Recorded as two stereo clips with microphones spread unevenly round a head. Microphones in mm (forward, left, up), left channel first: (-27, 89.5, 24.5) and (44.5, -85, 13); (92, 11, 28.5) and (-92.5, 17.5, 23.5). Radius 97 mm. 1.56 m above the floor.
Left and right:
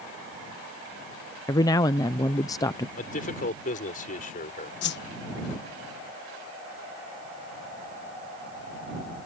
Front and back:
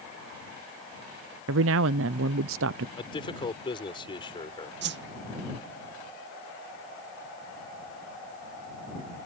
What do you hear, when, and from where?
1.5 s a man speaking: 175° right
3.0 s a man speaking: 65° left
4.8 s a whoosh: 150° left